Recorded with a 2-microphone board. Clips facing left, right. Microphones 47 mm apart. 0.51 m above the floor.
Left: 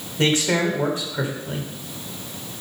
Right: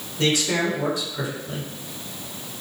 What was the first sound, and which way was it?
A man speaking, 40° left (ahead or behind).